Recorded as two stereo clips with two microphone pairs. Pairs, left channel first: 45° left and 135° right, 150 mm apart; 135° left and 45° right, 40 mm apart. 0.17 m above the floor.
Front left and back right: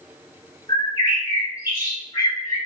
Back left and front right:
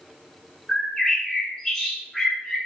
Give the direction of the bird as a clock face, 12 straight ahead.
10 o'clock.